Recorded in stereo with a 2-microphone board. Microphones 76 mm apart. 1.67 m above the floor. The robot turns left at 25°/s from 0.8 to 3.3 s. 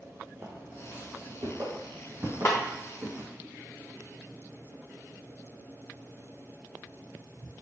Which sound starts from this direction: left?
A snare drum, at 2.5 s.